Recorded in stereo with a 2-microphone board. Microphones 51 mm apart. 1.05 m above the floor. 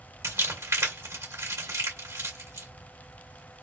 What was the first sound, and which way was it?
Crumpling, 80° right.